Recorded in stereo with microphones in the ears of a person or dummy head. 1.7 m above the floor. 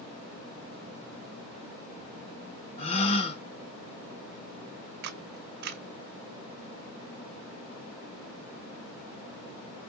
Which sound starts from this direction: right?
A camera shutter, at 5.0 s.